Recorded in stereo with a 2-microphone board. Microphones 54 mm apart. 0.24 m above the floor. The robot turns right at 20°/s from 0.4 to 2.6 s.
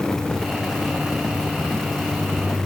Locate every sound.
Only background noise.